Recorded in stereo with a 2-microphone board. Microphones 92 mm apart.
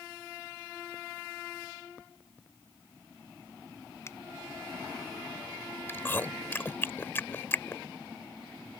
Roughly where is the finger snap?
Left.